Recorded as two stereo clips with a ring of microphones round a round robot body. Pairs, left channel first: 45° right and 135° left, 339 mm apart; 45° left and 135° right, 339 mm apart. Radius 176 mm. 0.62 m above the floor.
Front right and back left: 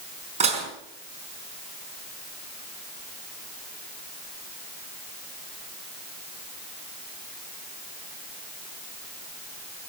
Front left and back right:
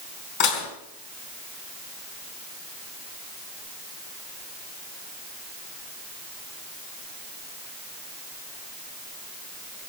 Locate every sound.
0.4 s dishes clattering: 65° left, 4 m